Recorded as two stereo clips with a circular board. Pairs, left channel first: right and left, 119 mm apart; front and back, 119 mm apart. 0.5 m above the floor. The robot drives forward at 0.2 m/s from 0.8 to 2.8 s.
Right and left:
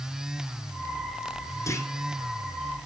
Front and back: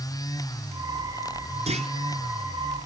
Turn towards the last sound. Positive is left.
turn(degrees=-160)